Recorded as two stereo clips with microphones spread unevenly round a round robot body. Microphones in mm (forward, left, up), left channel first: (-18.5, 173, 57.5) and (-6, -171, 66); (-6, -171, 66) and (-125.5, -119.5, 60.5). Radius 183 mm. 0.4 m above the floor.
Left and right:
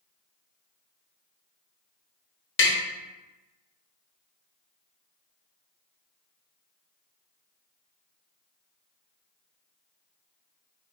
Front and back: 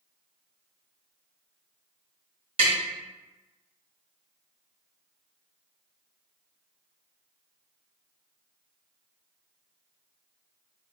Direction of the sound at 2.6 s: 130° left.